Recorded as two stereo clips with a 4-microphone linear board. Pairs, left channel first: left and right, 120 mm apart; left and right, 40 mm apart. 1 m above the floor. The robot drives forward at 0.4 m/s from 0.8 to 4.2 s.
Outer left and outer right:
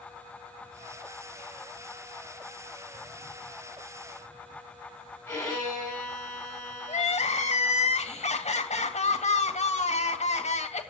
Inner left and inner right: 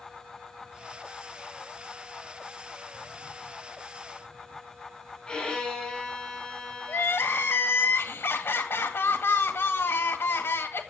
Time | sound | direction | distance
5.3 | a violin | 15° left (ahead or behind) | 8 m
6.9 | crying | 70° left (ahead or behind) | 1.9 m